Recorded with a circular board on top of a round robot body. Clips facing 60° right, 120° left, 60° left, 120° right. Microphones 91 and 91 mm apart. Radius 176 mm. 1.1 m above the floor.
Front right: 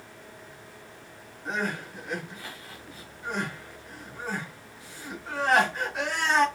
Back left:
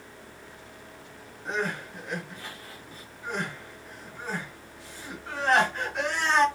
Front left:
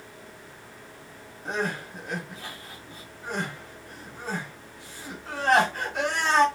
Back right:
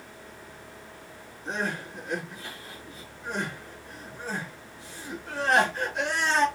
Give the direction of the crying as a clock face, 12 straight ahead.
11 o'clock.